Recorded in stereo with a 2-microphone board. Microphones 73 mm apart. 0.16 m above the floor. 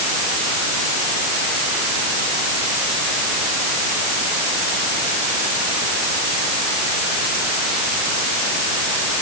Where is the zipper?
No zipper in this recording.